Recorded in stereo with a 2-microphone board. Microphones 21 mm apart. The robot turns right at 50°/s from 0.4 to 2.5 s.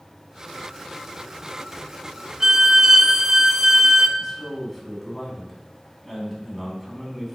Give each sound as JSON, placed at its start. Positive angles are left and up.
{"t": 2.4, "sound": "a violin", "side_deg": -30, "distance_m": 0.5}
{"t": 4.2, "sound": "a man speaking", "side_deg": -5, "distance_m": 3.0}